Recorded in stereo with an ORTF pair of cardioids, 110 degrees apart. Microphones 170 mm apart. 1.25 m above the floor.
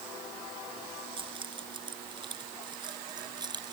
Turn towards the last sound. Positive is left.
turn(degrees=-25)